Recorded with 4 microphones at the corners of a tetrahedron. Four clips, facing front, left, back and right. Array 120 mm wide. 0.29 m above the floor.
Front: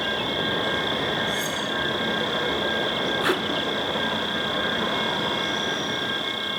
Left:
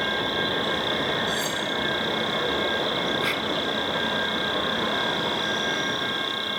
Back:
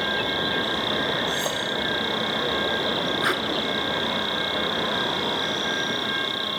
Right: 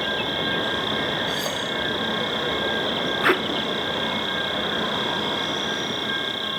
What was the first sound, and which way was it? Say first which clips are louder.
An insect: even, back 1 dB; 150° right.